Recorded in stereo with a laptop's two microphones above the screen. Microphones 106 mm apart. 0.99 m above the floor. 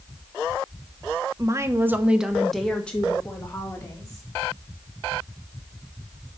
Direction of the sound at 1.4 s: 30° right (ahead or behind).